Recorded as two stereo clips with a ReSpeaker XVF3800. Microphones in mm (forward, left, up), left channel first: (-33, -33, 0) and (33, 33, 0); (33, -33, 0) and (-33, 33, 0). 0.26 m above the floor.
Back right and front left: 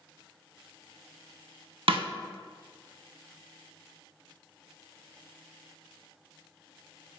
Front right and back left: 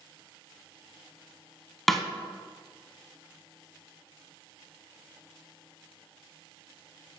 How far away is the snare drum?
About 0.5 m.